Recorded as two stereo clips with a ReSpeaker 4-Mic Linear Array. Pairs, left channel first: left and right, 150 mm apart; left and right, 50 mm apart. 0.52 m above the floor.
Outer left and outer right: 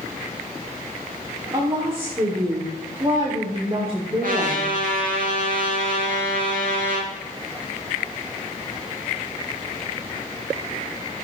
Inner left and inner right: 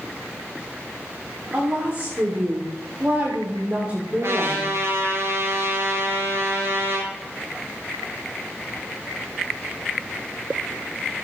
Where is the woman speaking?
35° right (ahead or behind), 1.8 m.